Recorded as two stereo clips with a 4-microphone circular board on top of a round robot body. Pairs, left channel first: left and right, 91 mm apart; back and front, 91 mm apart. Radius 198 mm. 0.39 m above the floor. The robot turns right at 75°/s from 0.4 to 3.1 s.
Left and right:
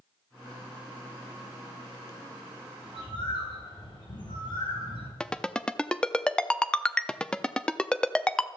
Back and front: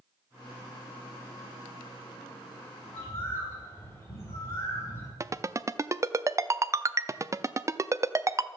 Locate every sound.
2.9 s a bird: 100° left, 4.5 m; by 5.1 s 120° left, 4.5 m
5.2 s a ringtone: 15° left, 0.7 m